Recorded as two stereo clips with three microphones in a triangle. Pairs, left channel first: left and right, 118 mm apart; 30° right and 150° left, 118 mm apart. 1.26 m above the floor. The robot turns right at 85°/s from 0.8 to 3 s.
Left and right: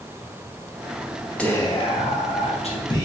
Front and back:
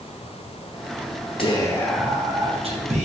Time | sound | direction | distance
1.4 | whispering | 10° left | 0.8 m